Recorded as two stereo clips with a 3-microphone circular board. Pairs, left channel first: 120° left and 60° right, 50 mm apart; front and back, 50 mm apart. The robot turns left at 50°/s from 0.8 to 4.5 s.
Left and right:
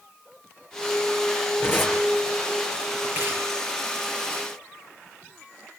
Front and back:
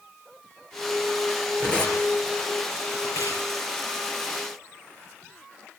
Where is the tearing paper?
70° left, 6 m; by 3.5 s 20° right, 6 m.